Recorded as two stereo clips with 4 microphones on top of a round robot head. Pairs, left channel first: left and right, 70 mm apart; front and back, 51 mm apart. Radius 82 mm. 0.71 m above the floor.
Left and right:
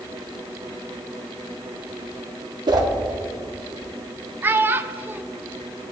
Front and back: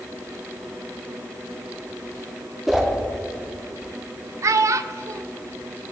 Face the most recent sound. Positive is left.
turn(degrees=-155)